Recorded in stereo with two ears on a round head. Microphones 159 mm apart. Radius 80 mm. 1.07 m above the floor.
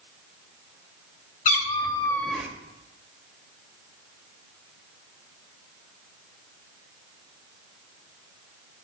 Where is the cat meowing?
50° left (ahead or behind), 1.3 m; by 2.5 s 10° right (ahead or behind), 1.0 m.